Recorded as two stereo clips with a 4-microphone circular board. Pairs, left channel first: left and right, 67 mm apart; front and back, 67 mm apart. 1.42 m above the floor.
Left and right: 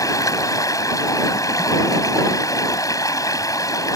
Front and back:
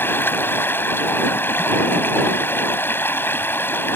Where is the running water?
60° left.